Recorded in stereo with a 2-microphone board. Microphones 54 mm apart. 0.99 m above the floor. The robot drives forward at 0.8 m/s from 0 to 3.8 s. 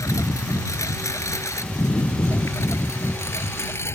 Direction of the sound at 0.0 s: 85° left.